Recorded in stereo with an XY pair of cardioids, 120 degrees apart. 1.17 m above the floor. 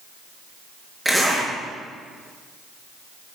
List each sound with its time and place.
1.1 s a zipper: 5° right, 4.5 m